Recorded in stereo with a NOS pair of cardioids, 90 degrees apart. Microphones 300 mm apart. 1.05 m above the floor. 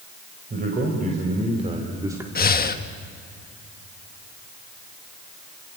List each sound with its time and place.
0.5 s a man speaking: 30° right, 4 m; by 2.2 s 5° right, 2 m
2.4 s breathing: 30° left, 1.4 m